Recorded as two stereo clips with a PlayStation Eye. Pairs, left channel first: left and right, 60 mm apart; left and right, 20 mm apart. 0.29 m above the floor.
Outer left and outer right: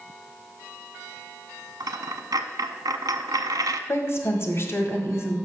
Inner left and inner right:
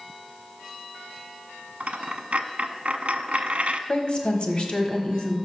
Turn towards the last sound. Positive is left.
turn(degrees=45)  # may be behind; listen again after turning